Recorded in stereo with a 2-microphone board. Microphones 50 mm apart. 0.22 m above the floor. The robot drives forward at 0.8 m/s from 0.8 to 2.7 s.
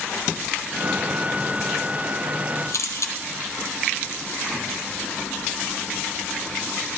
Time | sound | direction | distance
2.7 | a camera shutter | 75° left (ahead or behind) | 1.9 m